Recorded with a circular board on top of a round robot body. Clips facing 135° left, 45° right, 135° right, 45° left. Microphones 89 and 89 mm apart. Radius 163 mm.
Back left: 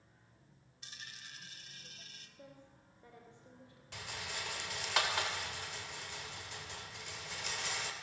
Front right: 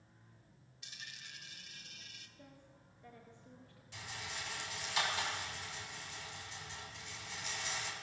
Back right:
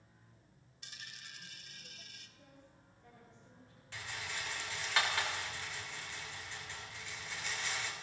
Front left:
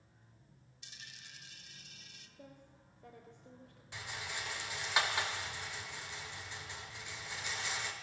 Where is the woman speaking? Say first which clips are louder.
Back left 4 dB, front left 4 dB; 65° left, 3.5 m.